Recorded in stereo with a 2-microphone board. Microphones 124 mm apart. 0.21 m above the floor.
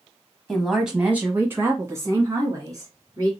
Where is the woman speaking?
5° left (ahead or behind), 1.0 m; by 3.3 s 35° right (ahead or behind), 2.5 m.